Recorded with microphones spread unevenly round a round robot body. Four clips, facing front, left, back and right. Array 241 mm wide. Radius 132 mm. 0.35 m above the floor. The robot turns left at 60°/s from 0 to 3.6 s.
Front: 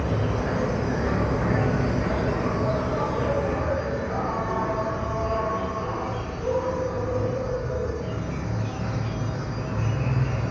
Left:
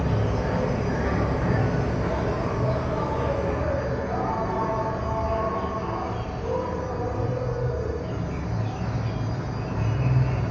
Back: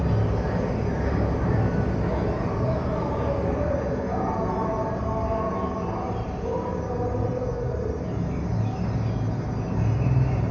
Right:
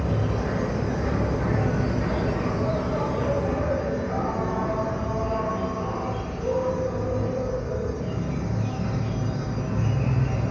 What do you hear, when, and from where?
0.0 s an insect: 105° left, 1.3 m; by 10.5 s 110° right, 1.3 m